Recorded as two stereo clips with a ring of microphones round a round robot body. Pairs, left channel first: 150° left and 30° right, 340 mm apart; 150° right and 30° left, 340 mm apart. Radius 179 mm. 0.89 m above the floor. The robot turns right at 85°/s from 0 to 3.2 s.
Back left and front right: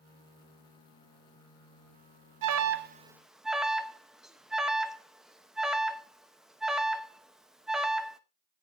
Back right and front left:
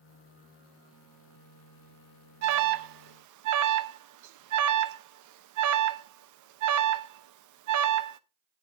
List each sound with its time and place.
2.4 s an alarm: 10° right, 0.8 m; by 8.2 s 60° left, 0.8 m